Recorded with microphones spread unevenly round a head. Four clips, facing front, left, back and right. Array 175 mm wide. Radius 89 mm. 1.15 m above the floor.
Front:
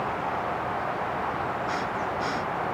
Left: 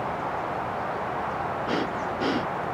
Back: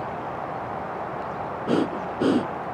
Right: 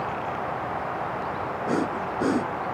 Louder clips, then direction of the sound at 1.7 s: Right 5 dB, back 4 dB; 170° right.